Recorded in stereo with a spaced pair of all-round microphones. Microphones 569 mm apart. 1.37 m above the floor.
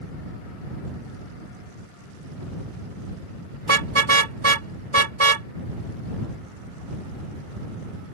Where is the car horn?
55° right (ahead or behind).